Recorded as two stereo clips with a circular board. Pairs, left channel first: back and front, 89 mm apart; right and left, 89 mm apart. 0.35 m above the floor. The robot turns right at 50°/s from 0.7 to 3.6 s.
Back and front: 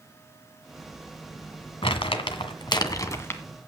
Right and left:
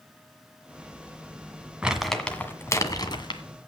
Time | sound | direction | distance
1.8 | crumpling | 170° left | 1.7 m